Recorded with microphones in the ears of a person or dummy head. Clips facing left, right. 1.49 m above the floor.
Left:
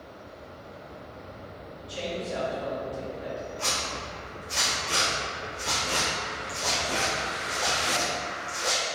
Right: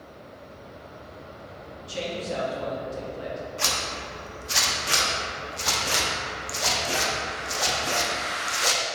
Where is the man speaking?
65° right (ahead or behind), 1.5 m.